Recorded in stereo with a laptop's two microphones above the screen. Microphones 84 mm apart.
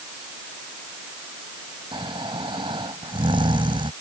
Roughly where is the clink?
I don't hear a clink.